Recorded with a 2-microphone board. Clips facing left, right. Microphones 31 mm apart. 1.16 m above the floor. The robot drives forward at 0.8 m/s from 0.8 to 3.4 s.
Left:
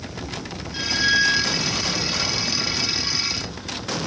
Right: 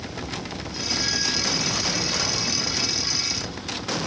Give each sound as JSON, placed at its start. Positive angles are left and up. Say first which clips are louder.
{"t": 0.7, "sound": "a squeak", "louder": "left 7 dB", "side_deg": 55}